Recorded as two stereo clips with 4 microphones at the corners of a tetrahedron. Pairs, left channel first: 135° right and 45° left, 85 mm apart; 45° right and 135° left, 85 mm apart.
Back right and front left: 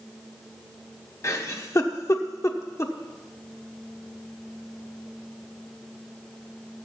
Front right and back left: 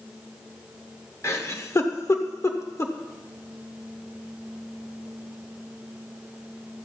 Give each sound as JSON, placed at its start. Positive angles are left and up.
{"t": 1.2, "sound": "a giggle", "azimuth_deg": -90, "distance_m": 1.1}